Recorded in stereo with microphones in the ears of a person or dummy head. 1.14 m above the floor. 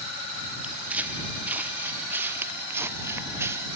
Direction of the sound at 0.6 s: Centre (ahead or behind).